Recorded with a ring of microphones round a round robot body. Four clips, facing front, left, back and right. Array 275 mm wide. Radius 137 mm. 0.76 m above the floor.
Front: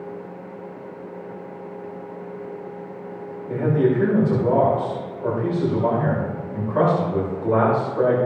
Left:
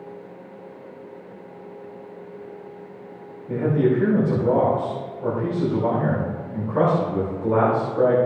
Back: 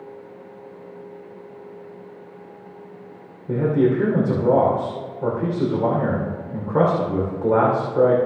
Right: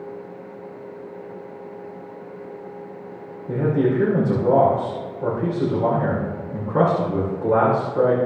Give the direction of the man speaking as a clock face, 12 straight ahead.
5 o'clock.